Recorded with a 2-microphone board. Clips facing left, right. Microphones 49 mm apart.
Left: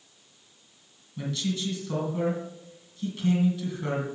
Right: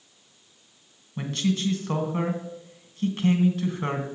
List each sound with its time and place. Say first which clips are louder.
1.2 s a man speaking: right 4 dB; 50° right (ahead or behind), 2 m